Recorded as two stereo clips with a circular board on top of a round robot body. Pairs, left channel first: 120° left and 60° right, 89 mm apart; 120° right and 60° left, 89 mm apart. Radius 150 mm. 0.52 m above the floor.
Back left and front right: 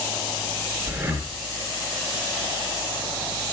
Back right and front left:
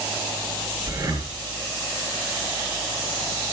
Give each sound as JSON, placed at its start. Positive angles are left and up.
{"t": 0.9, "sound": "breathing", "azimuth_deg": 10, "distance_m": 4.5}